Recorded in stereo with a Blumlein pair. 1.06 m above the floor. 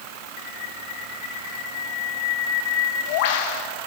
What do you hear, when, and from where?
0.4 s a bird: 50° left, 0.8 m